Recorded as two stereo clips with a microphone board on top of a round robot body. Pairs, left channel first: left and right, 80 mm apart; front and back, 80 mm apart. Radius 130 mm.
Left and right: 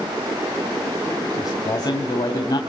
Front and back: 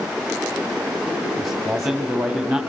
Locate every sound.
1.4 s a man speaking: 95° left, 2 m